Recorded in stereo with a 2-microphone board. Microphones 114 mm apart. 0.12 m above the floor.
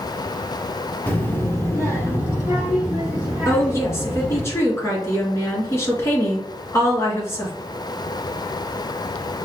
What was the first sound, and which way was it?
A child speaking, 15° left (ahead or behind).